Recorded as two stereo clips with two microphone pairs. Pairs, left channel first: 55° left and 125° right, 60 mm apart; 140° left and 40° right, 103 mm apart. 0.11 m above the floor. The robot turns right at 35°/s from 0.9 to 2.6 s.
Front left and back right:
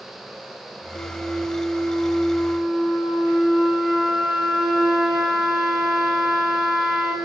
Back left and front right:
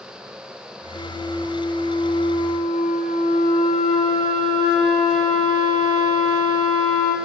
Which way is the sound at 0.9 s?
95° left.